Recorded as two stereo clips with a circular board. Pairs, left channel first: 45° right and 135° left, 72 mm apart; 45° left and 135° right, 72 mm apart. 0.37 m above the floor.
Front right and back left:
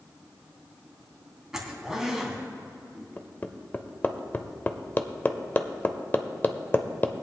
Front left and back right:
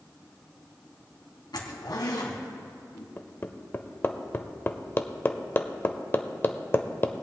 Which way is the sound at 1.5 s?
55° left.